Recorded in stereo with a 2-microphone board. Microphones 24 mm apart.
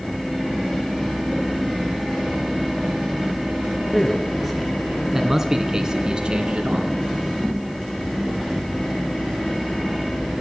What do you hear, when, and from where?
3.9 s a man speaking: 10° left (ahead or behind), 3 m; by 6.9 s 55° right (ahead or behind), 2.5 m